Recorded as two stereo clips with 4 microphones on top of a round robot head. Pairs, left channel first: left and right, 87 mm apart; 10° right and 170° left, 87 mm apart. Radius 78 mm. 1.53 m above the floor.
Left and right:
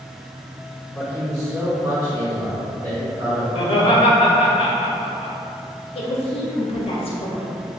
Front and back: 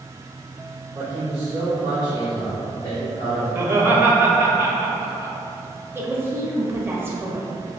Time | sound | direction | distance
0.9 | a man speaking | 160° left | 1.4 m
3.5 | laughter | 105° left | 0.9 m
6.0 | a woman speaking | 105° left | 1.0 m